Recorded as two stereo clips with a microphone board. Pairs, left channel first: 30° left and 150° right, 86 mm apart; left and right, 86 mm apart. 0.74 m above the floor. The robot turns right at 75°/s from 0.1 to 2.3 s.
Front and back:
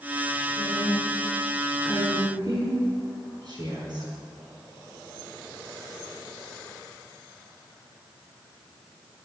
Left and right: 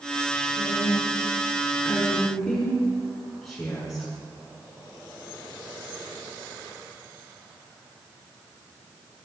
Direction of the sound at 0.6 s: 45° left.